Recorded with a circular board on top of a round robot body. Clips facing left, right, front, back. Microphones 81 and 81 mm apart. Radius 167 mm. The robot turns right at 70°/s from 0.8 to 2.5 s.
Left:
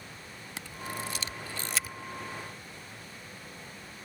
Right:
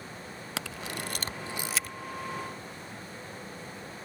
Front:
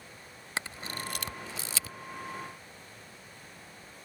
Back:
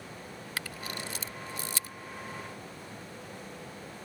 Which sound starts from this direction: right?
A camera shutter, at 0.6 s.